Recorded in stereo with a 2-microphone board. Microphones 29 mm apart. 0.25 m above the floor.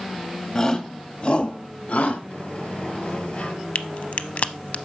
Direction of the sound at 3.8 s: 60° left (ahead or behind).